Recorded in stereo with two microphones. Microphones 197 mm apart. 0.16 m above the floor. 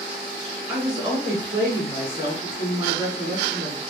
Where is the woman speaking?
20° right (ahead or behind), 1.7 m.